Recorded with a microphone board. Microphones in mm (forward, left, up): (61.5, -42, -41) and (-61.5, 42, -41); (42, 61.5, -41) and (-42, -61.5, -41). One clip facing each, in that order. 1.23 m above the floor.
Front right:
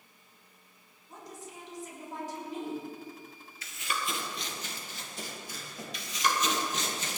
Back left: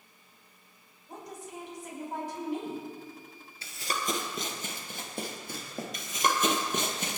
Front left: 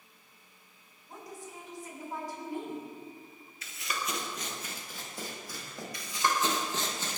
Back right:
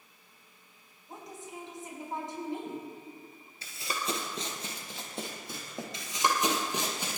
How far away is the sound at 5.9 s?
About 2.0 m.